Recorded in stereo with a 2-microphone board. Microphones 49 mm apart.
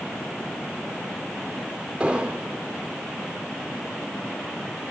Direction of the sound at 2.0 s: 20° right (ahead or behind).